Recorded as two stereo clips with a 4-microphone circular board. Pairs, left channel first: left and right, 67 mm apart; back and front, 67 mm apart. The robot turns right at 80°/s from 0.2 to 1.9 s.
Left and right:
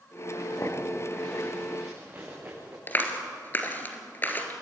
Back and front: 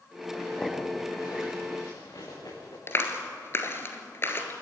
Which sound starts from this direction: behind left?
A clap, at 2.9 s.